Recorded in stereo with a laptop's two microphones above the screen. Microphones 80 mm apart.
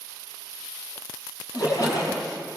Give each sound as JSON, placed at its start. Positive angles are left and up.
{"t": 1.5, "sound": "a splash", "side_deg": 50, "distance_m": 8.5}